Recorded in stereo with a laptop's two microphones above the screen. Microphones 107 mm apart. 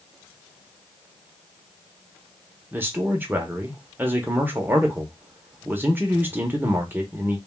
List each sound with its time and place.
2.7 s a man speaking: 20° right (ahead or behind), 0.8 m